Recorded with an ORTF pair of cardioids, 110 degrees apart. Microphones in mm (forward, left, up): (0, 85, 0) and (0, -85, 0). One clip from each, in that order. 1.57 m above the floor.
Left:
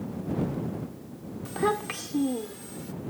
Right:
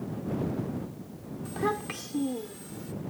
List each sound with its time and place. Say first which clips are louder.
1.4 s a child speaking: left 3 dB; 25° left; by 2.9 s 10° left